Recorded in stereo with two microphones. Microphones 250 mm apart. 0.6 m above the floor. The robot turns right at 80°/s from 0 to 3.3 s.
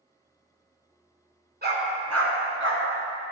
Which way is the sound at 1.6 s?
40° right (ahead or behind).